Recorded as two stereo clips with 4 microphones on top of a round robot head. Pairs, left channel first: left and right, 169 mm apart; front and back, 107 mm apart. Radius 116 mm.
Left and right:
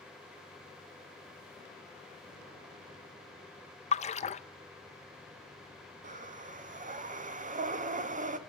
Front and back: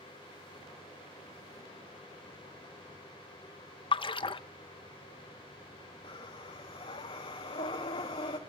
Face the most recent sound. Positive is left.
turn(degrees=-45)